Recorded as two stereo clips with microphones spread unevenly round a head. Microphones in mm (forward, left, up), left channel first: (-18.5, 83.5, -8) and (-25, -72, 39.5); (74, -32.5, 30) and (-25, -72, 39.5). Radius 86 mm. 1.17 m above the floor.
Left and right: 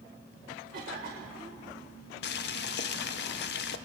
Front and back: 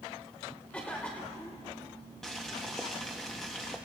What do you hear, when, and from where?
0.7 s a cough: 50° right, 1.5 m
2.2 s boiling: 115° left, 0.6 m